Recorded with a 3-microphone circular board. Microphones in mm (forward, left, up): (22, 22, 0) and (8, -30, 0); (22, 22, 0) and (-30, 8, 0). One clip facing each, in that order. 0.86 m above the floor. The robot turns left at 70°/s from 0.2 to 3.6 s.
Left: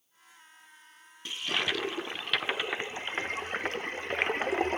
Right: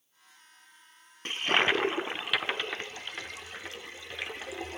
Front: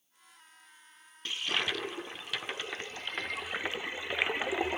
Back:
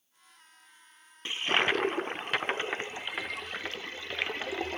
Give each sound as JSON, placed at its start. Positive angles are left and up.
{"t": 1.2, "sound": "a toilet flushing", "azimuth_deg": -110, "distance_m": 0.5}